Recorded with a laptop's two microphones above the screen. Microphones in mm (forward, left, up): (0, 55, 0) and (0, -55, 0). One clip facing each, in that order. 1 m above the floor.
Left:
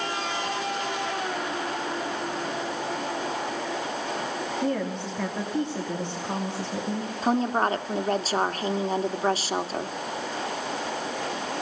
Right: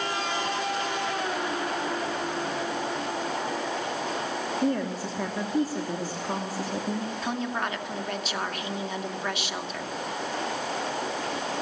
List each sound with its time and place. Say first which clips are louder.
4.6 s a woman speaking: right 1 dB; 5° right (ahead or behind), 2.5 m
7.2 s a woman speaking: left 10 dB; 40° left (ahead or behind), 2 m